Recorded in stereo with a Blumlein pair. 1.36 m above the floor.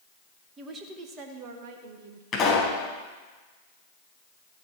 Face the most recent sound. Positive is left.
turn(degrees=25)